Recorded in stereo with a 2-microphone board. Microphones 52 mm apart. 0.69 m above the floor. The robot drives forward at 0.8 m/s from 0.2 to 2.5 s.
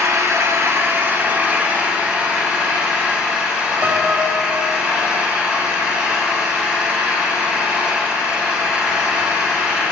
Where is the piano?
35° right (ahead or behind), 0.6 m.